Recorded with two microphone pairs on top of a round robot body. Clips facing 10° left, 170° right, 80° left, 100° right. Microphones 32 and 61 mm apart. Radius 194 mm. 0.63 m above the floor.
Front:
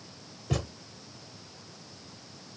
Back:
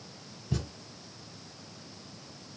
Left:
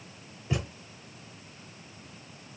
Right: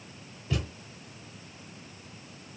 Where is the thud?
5° left, 1.0 m.